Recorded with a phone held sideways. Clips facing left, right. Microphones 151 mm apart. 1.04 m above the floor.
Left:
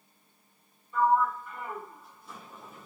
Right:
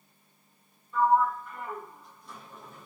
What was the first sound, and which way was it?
A sliding door, 5° left (ahead or behind).